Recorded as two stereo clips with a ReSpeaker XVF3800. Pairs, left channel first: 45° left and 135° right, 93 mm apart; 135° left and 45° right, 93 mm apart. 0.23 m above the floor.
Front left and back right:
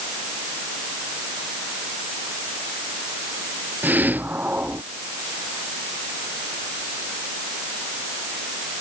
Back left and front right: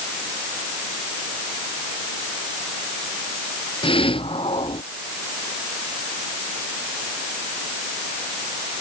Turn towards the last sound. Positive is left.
turn(degrees=155)